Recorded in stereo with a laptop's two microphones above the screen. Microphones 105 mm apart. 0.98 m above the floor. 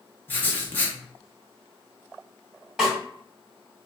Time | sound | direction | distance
0.3 | writing | 20° left (ahead or behind) | 0.6 m
2.8 | a snare drum | 5° right (ahead or behind) | 1.6 m